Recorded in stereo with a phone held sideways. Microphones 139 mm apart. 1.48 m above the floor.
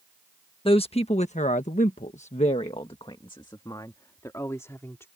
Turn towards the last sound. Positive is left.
turn(degrees=20)  # may be behind; listen again after turning